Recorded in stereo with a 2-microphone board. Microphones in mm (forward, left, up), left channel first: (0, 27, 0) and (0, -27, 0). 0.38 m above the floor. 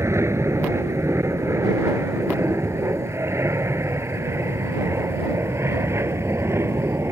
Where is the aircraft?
55° right (ahead or behind); by 7.1 s 50° right (ahead or behind).